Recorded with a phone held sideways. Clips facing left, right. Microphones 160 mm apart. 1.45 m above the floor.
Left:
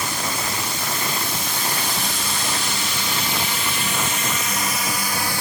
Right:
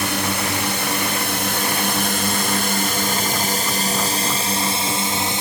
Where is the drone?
75° right (ahead or behind); by 5.4 s 20° right (ahead or behind).